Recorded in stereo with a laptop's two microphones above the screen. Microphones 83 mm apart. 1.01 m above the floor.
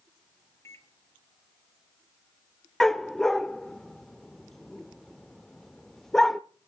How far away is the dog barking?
About 0.7 m.